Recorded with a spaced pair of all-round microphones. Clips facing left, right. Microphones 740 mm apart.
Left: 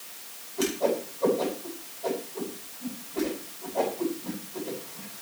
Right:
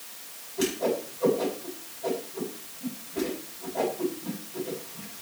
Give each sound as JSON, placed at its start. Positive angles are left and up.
{"t": 0.6, "sound": "a whoosh", "side_deg": -45, "distance_m": 8.5}